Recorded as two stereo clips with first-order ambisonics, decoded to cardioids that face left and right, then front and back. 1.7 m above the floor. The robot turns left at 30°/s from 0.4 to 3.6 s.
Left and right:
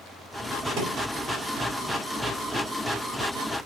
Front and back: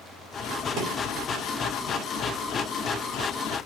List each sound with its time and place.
0.8 s a thud: 130° right, 4.5 m; by 0.9 s 135° right, 4.5 m